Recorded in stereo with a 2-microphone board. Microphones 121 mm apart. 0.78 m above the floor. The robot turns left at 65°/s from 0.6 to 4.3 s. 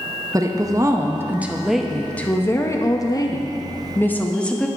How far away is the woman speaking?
About 0.6 m.